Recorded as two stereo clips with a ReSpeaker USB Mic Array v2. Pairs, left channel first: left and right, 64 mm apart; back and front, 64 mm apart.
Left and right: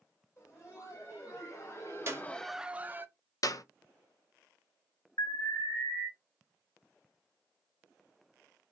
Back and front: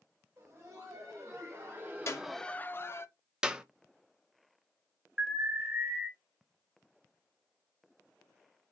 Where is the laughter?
50° left, 2.5 m; by 3.1 s 140° right, 0.9 m.